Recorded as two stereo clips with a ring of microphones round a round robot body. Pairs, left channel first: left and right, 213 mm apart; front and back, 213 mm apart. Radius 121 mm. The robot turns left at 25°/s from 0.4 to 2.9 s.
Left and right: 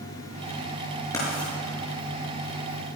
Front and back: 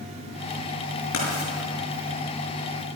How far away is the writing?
About 6.5 m.